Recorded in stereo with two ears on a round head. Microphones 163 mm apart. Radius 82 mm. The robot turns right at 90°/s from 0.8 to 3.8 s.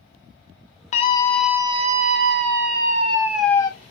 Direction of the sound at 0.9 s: 135° left.